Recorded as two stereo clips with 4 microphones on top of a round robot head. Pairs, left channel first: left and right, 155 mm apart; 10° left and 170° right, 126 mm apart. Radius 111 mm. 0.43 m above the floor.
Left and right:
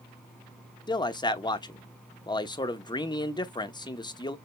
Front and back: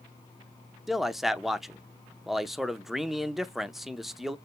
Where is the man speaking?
100° left, 0.9 m.